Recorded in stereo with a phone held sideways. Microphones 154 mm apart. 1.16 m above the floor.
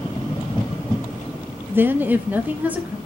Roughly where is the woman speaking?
Centre.